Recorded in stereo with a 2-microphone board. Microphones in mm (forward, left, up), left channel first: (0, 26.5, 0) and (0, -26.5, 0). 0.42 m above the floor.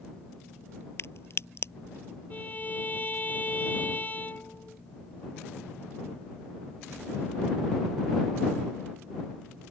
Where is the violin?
30° left (ahead or behind).